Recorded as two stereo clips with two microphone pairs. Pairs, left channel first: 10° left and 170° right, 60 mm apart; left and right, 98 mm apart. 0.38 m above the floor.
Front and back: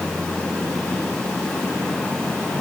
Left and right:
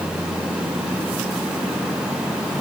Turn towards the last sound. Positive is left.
No sound to turn to.